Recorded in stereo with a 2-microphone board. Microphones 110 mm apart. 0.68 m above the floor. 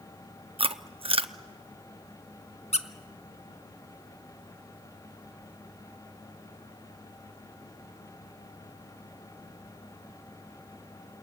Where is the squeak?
80° left, 0.9 m.